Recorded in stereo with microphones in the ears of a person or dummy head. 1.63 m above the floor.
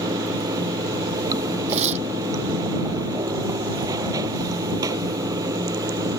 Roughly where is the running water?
Right.